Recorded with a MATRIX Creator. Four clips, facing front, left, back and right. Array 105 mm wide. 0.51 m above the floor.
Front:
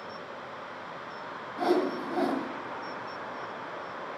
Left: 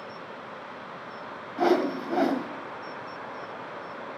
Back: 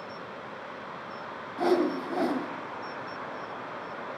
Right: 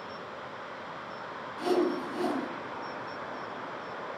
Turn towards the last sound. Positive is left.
turn(degrees=95)